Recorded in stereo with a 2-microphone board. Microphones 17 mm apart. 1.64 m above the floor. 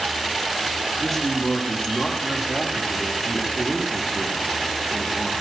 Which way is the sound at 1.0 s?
5° left (ahead or behind).